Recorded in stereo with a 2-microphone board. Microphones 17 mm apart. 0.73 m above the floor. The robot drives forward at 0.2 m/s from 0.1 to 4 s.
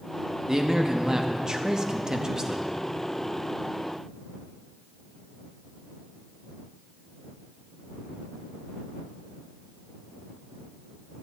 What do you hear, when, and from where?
0.5 s a man speaking: 30° right (ahead or behind), 0.7 m; by 2.6 s 40° right (ahead or behind), 0.6 m